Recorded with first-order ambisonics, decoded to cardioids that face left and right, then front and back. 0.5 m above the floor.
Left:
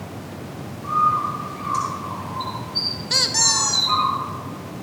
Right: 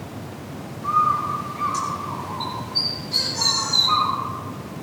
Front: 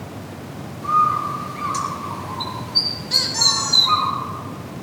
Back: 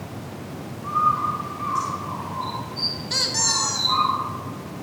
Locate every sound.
0.8 s a bird: 5° right, 4 m
3.1 s a squeak: 95° left, 1.3 m